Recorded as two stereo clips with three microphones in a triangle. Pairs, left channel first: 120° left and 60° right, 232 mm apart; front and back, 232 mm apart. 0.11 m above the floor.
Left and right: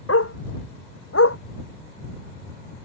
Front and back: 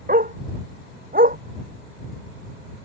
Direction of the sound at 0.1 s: 130° left.